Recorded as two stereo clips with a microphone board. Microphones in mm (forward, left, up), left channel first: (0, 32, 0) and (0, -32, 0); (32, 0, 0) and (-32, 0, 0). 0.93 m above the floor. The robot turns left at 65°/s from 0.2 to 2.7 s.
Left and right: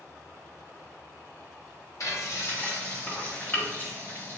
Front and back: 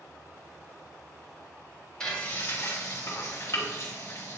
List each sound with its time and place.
2.0 s frying: 80° left, 1.7 m; by 4.4 s 35° left, 1.7 m